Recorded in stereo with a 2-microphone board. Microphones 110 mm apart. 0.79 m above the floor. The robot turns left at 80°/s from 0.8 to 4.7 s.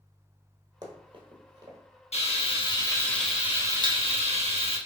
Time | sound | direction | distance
0.8 | running footsteps | 40° right (ahead or behind) | 1.1 m
2.1 | frying | 95° left | 0.9 m